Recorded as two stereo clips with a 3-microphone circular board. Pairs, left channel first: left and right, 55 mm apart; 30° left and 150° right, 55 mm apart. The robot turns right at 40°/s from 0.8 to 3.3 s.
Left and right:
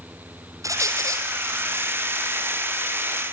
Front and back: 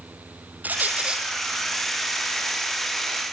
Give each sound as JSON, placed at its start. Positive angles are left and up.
{"t": 0.6, "sound": "a squeak", "azimuth_deg": -90, "distance_m": 3.5}